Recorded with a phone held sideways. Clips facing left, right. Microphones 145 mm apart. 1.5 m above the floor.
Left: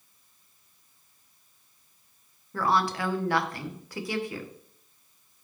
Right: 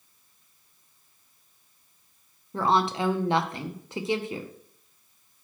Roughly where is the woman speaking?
Right.